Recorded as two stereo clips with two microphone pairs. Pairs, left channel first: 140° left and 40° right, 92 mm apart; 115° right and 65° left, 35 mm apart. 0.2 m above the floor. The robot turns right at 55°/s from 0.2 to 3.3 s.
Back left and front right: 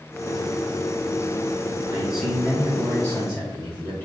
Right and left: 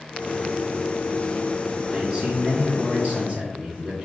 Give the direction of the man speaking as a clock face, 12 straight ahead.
11 o'clock.